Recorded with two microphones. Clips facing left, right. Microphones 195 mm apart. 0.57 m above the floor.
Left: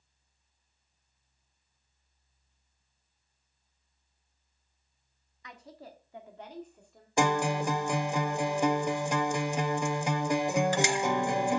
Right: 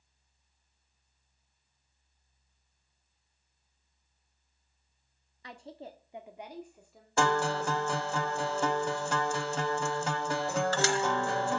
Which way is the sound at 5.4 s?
35° right (ahead or behind).